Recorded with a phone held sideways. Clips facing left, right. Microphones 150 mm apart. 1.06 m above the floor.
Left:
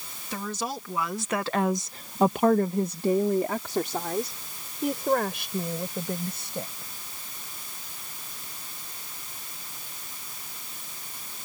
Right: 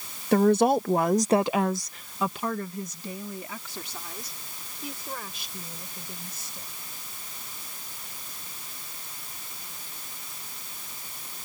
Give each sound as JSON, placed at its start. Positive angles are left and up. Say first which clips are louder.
{"t": 0.3, "sound": "a woman speaking", "louder": "right 13 dB", "side_deg": -70}